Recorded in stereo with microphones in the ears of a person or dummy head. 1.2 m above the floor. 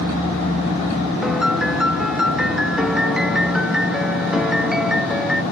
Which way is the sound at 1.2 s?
Centre (ahead or behind).